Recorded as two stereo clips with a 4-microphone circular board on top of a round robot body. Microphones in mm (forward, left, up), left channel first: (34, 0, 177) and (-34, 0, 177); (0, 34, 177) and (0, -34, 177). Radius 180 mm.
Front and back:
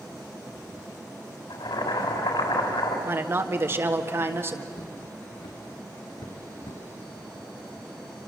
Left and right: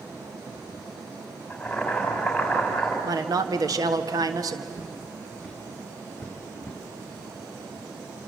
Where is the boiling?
10° left, 4 m.